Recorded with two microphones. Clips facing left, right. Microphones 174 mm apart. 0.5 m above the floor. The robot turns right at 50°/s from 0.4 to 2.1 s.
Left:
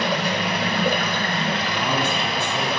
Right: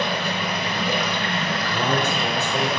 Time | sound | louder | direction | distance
0.0 | running water | left 2 dB | 95° left | 1.1 m
1.7 | a man speaking | right 1 dB | 40° right (ahead or behind) | 1.7 m